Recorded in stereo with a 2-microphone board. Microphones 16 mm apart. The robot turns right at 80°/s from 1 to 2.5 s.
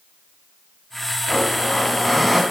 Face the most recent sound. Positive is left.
turn(degrees=-155)